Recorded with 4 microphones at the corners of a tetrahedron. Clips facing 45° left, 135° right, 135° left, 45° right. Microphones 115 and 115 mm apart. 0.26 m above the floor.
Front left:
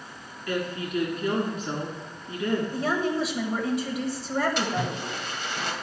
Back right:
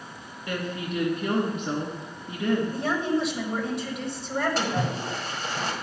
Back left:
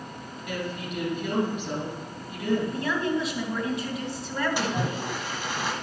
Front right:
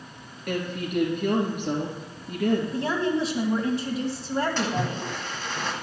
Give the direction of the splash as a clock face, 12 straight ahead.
5 o'clock.